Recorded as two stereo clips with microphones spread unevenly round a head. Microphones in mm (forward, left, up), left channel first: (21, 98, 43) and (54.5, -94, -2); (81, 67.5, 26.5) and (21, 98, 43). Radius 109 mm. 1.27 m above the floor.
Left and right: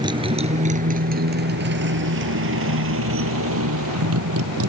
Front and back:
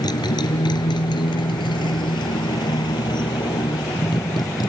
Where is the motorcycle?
10° right; by 4.7 s 75° right.